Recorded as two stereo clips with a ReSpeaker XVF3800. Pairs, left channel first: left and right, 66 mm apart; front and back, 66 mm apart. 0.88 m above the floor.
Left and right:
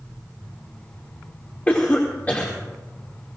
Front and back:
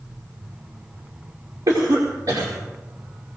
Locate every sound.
1.7 s a cough: 155° left, 2.5 m